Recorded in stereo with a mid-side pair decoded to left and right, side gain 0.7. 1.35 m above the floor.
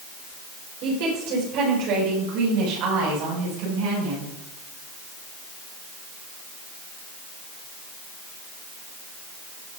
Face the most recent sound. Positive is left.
turn(degrees=-80)